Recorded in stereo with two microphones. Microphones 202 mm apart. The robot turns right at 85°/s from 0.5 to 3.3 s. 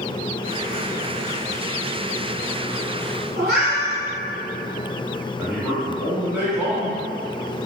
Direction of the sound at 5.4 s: 5° right (ahead or behind).